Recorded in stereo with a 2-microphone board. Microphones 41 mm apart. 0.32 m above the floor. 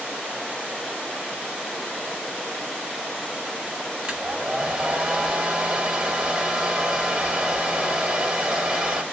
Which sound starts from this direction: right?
A hair dryer, at 4.0 s.